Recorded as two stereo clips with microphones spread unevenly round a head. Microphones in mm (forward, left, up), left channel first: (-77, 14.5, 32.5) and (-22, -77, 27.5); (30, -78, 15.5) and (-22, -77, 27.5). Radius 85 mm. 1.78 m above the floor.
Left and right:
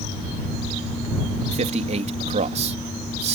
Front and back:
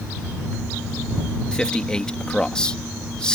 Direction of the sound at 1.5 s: 75° right.